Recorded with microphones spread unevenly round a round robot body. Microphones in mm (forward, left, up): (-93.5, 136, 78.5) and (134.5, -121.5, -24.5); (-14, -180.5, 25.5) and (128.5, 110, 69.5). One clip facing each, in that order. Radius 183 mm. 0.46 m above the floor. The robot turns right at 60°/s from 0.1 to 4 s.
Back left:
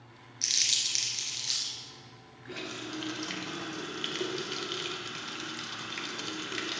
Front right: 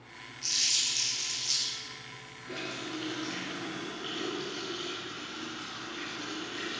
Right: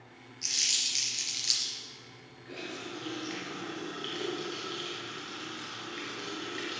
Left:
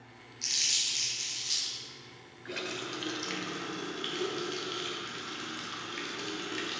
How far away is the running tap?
About 1.4 m.